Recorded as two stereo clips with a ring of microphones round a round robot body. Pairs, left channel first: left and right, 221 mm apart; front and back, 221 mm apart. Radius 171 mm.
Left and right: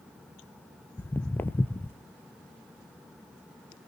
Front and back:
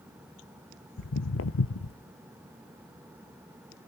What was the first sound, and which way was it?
Footsteps, 10° left.